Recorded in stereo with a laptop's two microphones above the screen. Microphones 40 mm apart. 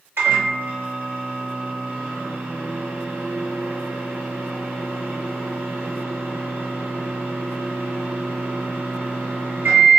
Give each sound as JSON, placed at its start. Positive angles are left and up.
{"t": 0.2, "sound": "a microwave", "side_deg": -65, "distance_m": 1.2}